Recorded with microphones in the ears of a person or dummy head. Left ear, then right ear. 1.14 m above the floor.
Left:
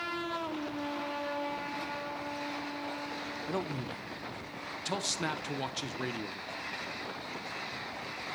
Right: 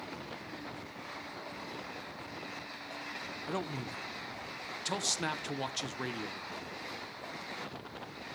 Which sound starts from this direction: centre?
A man speaking, at 3.5 s.